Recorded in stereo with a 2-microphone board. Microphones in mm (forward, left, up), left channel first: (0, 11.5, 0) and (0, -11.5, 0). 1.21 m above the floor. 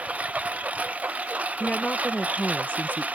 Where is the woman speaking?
75° left (ahead or behind).